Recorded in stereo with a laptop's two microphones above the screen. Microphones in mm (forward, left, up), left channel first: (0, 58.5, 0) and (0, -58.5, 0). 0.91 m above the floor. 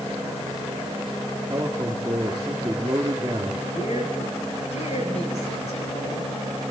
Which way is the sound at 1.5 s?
30° right (ahead or behind).